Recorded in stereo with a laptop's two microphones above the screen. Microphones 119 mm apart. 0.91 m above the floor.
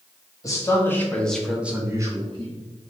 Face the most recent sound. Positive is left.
turn(degrees=-45)  # may be behind; listen again after turning